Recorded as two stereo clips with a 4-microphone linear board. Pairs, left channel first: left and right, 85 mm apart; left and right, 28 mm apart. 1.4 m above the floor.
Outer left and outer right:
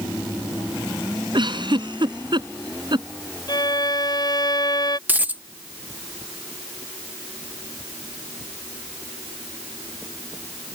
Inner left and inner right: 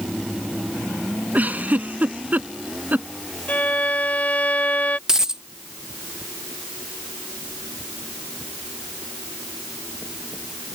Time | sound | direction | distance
1.3 | a giggle | 65° right (ahead or behind) | ?
3.5 | a violin | 55° left (ahead or behind) | ?
5.1 | a dropped coin | 20° right (ahead or behind) | ?